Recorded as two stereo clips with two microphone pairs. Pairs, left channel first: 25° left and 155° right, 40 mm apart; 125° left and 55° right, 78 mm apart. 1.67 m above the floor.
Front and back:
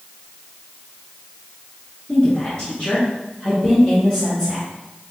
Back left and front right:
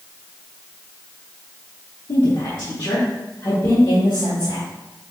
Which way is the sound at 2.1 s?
120° left.